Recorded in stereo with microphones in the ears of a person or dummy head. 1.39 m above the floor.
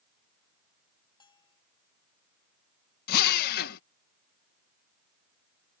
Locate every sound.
1.2 s a bell: 25° left (ahead or behind)
3.1 s a drill: 45° left (ahead or behind)